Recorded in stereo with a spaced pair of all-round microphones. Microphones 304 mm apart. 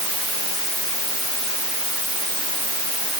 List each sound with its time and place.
Only background noise.